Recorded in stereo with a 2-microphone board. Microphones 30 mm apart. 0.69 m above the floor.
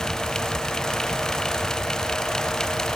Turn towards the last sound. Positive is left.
No sound to turn to.